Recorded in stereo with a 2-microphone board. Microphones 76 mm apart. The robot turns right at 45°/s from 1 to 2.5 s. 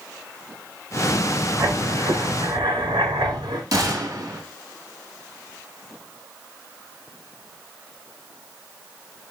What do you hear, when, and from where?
1.6 s writing: 150° right, 2.5 m; by 3.6 s 110° right, 2.5 m
3.7 s a gunshot: 50° right (ahead or behind), 2 m